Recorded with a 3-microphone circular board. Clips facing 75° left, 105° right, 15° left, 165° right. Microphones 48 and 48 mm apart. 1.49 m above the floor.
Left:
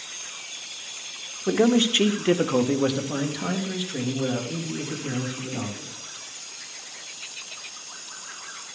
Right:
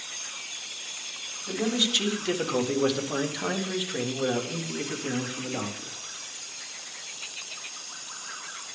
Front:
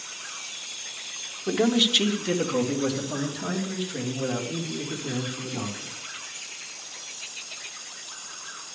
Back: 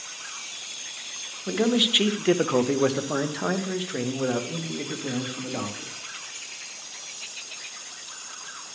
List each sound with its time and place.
1.5 s a man speaking: 95° left, 0.8 m; by 6.0 s 165° right, 2.5 m